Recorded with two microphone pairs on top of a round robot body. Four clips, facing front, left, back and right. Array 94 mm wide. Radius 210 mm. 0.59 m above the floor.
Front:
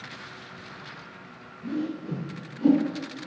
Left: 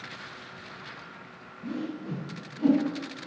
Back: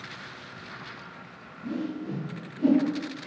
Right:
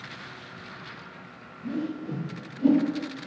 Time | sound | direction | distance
1.6 | a whoosh | 60° left | 1.9 m